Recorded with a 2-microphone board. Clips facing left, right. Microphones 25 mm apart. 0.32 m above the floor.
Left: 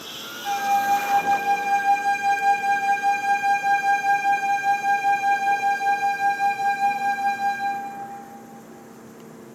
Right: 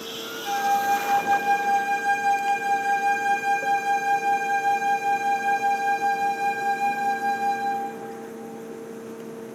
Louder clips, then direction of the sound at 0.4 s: Left 1 dB; 15° left (ahead or behind).